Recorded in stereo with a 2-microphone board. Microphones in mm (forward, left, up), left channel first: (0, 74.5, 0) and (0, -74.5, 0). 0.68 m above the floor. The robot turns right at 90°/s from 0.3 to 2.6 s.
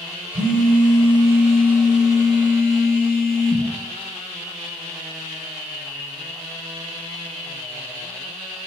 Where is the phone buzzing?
105° right, 0.6 m; by 3.7 s 95° left, 0.6 m.